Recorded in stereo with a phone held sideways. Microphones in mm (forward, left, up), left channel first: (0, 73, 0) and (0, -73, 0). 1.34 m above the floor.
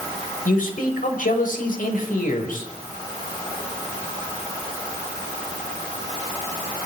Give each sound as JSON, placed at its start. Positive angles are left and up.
{"t": 0.5, "sound": "a man speaking", "side_deg": 70, "distance_m": 6.0}